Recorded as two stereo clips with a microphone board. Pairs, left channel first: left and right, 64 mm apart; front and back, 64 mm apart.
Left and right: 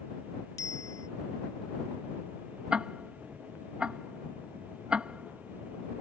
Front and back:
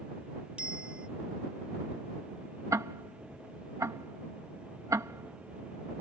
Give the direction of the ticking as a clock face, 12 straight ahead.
5 o'clock.